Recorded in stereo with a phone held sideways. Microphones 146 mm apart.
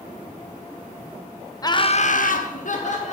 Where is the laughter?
25° left (ahead or behind), 0.7 m; by 3.1 s 50° left (ahead or behind), 1.3 m.